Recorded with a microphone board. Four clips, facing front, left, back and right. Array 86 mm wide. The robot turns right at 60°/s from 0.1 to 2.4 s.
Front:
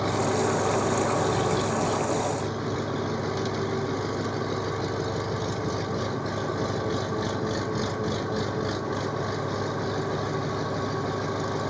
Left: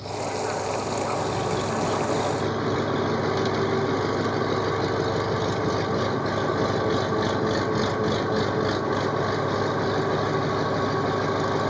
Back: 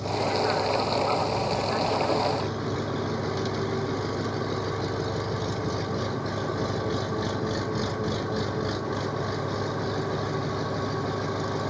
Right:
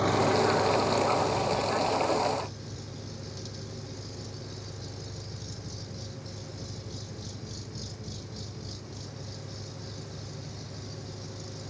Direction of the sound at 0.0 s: 50° right.